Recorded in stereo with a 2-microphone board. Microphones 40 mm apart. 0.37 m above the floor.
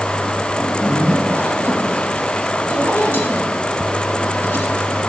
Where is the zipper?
70° left (ahead or behind), 4.5 m.